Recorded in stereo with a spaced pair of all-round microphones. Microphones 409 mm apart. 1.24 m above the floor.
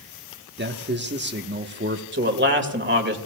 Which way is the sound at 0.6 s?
25° right (ahead or behind).